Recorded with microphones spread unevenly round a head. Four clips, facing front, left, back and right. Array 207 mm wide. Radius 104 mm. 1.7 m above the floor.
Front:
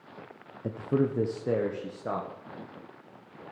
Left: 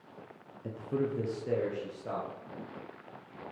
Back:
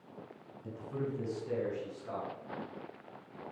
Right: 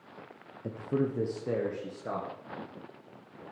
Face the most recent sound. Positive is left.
turn(degrees=-15)